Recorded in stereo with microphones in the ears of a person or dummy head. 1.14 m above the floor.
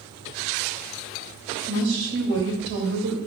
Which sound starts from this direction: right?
A woman speaking, at 1.7 s.